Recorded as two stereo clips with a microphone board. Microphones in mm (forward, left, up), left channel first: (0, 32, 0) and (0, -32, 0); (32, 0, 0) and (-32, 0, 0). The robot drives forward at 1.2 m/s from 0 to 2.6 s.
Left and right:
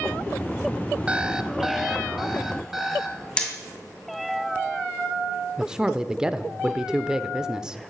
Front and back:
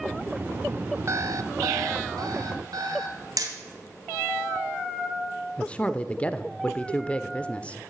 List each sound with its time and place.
1.1 s an alarm clock: 160° right, 0.6 m; by 3.3 s 175° right, 2.5 m
3.4 s hammering: 165° left, 2.5 m
5.6 s a man speaking: 35° right, 0.8 m